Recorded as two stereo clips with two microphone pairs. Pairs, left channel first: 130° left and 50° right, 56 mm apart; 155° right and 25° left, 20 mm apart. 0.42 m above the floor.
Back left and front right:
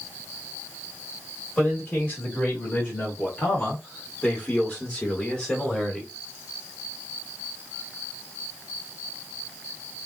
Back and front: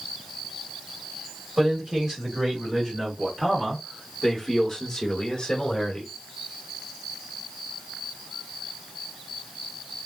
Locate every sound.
1.6 s a man speaking: 70° left, 2.0 m; by 6.1 s 145° right, 1.4 m